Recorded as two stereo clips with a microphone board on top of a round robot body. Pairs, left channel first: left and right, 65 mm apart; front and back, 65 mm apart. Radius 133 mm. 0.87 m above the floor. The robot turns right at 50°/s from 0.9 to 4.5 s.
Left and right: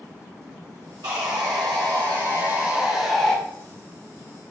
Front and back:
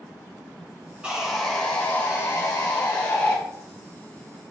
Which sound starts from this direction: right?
Sawing, at 1.0 s.